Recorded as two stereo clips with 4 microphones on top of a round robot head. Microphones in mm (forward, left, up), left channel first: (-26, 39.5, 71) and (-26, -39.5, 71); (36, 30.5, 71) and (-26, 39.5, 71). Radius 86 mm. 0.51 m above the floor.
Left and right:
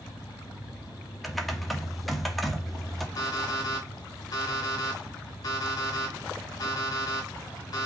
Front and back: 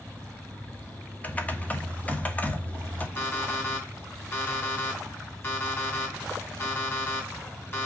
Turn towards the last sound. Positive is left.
turn(degrees=45)